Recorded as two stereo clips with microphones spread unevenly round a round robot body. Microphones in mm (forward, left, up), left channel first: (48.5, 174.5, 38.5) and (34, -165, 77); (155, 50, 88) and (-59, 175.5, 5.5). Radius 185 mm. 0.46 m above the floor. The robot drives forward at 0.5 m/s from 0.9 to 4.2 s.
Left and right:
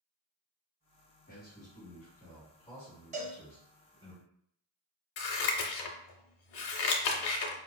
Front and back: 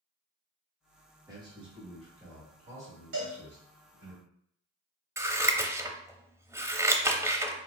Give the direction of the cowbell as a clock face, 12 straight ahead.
5 o'clock.